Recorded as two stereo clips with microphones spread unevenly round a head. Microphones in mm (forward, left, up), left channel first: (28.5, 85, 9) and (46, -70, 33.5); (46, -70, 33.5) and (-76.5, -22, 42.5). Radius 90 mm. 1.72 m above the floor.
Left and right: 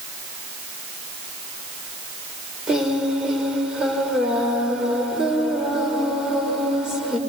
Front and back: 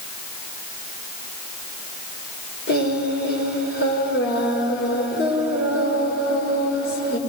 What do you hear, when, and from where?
2.7 s singing: straight ahead, 5 m